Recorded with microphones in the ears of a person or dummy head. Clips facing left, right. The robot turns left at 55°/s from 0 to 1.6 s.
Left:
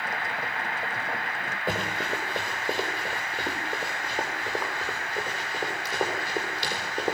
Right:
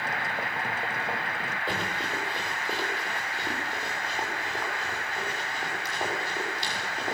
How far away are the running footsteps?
About 6.5 m.